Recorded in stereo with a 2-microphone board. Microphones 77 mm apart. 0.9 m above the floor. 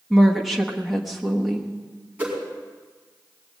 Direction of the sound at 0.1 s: 5° right (ahead or behind).